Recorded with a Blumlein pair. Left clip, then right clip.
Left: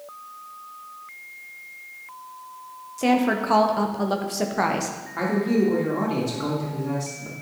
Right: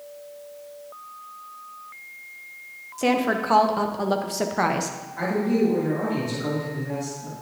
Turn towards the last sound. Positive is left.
turn(degrees=30)